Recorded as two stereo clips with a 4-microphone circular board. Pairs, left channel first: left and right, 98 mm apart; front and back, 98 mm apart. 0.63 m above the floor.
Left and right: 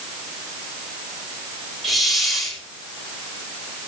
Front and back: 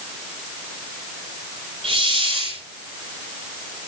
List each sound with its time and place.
1.8 s a hiss: straight behind, 8.5 m